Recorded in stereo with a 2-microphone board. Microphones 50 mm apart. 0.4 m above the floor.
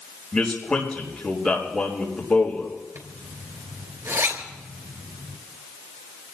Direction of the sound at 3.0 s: 70° right (ahead or behind).